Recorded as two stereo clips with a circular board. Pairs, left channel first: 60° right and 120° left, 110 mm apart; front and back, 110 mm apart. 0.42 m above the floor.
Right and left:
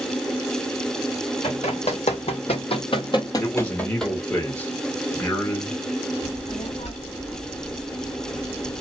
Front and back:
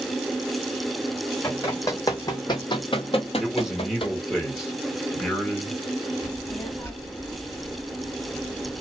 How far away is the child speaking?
About 1.5 m.